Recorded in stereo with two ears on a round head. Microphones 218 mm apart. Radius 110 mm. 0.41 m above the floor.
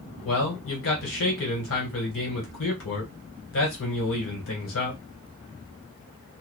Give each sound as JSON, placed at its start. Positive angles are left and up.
{"t": 0.2, "sound": "a man speaking", "side_deg": 60, "distance_m": 1.7}